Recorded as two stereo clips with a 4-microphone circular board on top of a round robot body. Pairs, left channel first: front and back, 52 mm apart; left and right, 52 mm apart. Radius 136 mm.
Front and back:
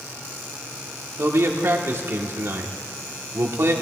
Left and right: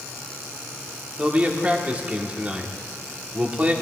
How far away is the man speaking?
About 1.3 m.